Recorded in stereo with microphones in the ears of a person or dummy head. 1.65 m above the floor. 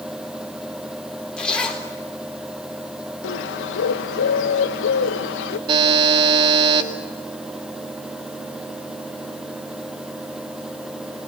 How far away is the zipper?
About 3.5 m.